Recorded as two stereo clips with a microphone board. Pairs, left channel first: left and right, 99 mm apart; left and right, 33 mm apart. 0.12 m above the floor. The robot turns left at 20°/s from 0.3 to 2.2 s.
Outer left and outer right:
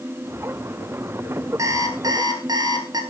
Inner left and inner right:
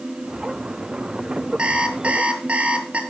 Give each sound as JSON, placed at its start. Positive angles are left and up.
{"t": 1.6, "sound": "an alarm clock", "side_deg": -35, "distance_m": 1.6}